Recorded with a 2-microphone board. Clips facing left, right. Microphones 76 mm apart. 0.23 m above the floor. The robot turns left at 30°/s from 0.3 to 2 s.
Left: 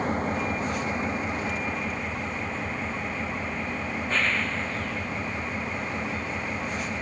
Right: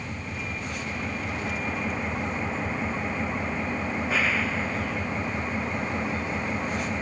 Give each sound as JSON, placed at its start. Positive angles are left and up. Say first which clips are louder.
{"t": 0.0, "sound": "an engine running", "louder": "left 8 dB", "azimuth_deg": 45}